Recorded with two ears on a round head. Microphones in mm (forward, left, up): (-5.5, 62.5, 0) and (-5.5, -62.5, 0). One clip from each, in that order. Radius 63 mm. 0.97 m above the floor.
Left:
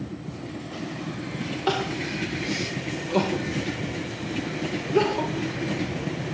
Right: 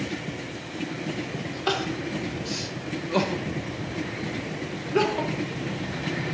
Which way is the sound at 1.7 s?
25° right (ahead or behind).